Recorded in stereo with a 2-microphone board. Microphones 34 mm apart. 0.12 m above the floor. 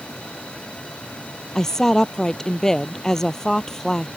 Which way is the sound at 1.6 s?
10° left (ahead or behind).